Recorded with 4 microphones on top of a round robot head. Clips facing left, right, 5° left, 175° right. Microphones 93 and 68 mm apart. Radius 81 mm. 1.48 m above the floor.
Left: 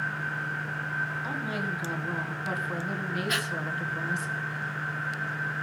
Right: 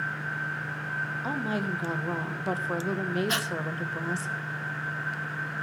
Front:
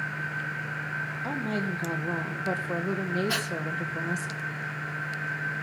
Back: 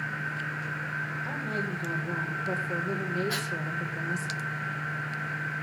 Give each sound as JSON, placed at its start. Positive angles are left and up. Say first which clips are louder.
{"t": 1.2, "sound": "a woman speaking", "louder": "right 2 dB, front 2 dB", "azimuth_deg": -35, "distance_m": 1.5}
{"t": 3.3, "sound": "breathing", "louder": "right 1 dB, front 2 dB", "azimuth_deg": -35, "distance_m": 1.1}